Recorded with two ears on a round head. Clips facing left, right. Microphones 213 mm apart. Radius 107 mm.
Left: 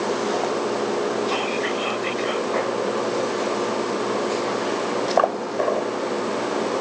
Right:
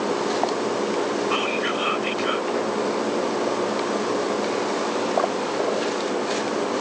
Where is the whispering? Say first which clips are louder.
Even; 15° right (ahead or behind).